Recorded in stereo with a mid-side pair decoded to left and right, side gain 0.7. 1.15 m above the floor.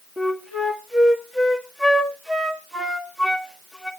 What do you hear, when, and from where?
0.2 s a flute: 5° right, 1.6 m